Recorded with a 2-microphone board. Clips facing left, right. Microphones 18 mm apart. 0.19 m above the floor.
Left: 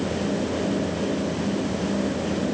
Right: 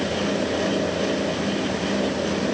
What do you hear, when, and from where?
Only background noise.